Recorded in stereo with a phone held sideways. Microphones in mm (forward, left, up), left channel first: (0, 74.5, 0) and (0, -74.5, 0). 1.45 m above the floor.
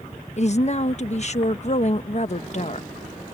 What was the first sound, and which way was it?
A woman speaking, 50° left (ahead or behind).